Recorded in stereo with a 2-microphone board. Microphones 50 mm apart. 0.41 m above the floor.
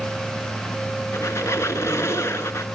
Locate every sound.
1.1 s a squeak: 70° left (ahead or behind), 1.2 m